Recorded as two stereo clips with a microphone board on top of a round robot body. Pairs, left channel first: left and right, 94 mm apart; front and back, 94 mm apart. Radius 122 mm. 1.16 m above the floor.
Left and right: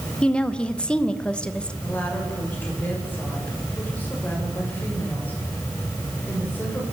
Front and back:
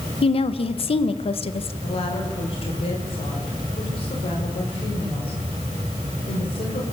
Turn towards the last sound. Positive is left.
turn(degrees=20)